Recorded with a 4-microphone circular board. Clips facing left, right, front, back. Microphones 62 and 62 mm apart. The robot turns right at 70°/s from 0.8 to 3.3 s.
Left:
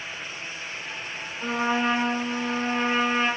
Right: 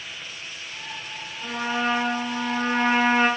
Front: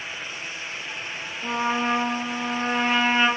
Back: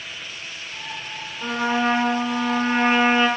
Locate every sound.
1.4 s a trumpet: 145° left, 6 m; by 3.3 s 80° right, 6 m